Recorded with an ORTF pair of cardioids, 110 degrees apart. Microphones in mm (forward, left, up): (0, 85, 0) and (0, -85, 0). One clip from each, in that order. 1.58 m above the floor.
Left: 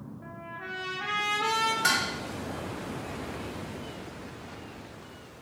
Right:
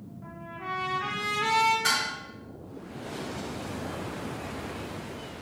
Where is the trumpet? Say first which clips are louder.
Right 2 dB; 20° left, 1.1 m.